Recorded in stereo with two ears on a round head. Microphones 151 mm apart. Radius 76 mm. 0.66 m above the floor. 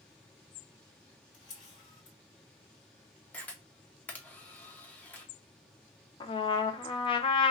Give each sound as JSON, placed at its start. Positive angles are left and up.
{"t": 1.3, "sound": "a camera shutter", "side_deg": 30, "distance_m": 2.0}
{"t": 3.3, "sound": "a camera shutter", "side_deg": 10, "distance_m": 0.7}
{"t": 6.2, "sound": "a trumpet", "side_deg": 30, "distance_m": 0.5}